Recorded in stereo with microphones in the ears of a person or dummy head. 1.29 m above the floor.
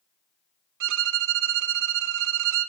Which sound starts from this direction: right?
A violin, at 0.8 s.